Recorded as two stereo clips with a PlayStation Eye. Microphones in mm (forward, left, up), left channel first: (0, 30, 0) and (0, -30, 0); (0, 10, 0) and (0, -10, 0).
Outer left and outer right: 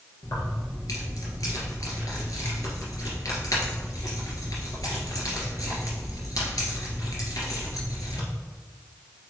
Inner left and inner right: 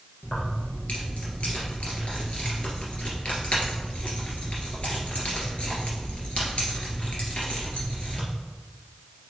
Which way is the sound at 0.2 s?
75° left (ahead or behind).